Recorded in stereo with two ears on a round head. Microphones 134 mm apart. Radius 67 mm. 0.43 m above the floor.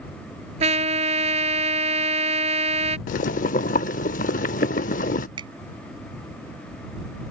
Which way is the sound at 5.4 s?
30° right (ahead or behind).